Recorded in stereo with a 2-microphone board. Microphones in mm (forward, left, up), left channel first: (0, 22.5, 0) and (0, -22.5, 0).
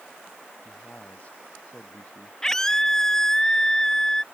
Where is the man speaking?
35° left (ahead or behind); by 2.3 s 30° left (ahead or behind).